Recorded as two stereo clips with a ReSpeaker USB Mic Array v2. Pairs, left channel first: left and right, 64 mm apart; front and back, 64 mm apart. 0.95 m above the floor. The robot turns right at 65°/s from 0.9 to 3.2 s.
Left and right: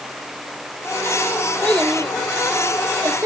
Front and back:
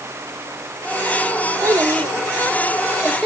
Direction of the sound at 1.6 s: 155° left.